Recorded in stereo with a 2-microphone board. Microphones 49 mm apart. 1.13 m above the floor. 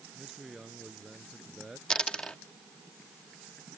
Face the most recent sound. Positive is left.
turn(degrees=20)  # may be behind; listen again after turning